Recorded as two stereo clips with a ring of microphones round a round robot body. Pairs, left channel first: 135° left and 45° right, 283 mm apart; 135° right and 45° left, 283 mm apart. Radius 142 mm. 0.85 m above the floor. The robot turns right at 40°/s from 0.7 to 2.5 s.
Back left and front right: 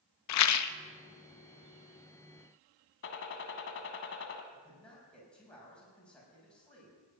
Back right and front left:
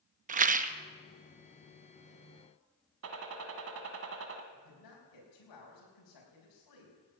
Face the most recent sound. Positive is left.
turn(degrees=-140)